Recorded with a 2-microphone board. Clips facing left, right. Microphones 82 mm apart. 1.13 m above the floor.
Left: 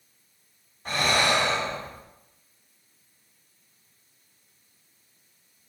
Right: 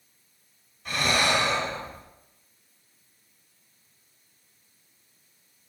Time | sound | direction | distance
0.8 | breathing | 35° left (ahead or behind) | 3 m